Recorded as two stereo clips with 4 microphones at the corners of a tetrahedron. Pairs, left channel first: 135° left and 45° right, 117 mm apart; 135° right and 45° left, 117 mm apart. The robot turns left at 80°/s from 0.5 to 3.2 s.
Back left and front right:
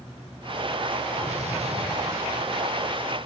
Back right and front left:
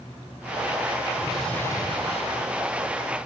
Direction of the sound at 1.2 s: 30° right.